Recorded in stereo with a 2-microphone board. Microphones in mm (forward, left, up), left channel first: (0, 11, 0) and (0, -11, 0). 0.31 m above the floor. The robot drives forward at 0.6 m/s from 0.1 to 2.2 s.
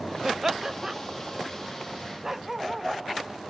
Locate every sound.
0.2 s laughter: 20° right (ahead or behind)
2.2 s a dog barking: 15° right (ahead or behind)